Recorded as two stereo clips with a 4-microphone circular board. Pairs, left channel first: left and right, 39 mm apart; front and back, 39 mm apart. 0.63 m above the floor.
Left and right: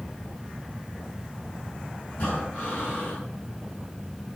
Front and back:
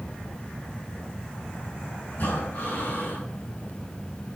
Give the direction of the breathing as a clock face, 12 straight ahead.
11 o'clock.